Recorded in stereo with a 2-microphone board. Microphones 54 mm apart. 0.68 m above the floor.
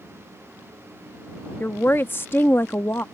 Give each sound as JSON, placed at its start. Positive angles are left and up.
{"t": 1.6, "sound": "a woman speaking", "side_deg": 40}